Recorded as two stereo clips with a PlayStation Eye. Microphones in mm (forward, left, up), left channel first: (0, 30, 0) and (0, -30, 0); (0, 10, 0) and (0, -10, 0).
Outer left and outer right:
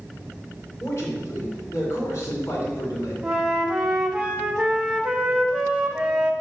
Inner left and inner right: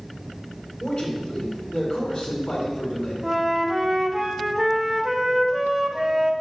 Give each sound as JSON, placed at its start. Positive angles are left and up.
{"t": 0.8, "sound": "a man speaking", "side_deg": 40, "distance_m": 2.5}
{"t": 3.2, "sound": "a flute", "side_deg": -15, "distance_m": 0.9}